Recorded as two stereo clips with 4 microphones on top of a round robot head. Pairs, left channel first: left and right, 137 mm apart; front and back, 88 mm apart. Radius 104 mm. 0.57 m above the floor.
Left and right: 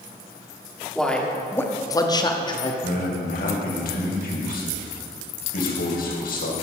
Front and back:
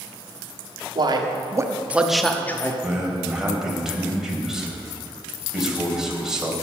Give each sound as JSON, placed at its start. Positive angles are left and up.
{"t": 0.9, "sound": "a man speaking", "azimuth_deg": 175, "distance_m": 1.7}
{"t": 2.8, "sound": "a man speaking", "azimuth_deg": 100, "distance_m": 3.0}